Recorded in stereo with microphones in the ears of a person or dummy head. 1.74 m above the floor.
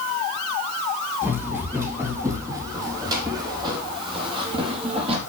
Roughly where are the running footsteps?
Centre.